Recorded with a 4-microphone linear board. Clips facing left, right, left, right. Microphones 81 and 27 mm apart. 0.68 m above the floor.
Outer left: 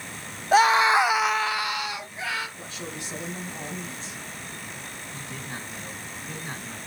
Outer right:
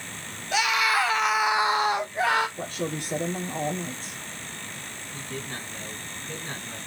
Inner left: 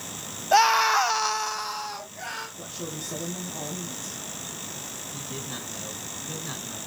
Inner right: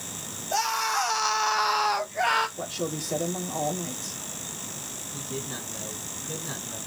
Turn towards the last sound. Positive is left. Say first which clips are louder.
# outer right 3 dB, inner right 2 dB
turn(degrees=15)  # may be behind; listen again after turning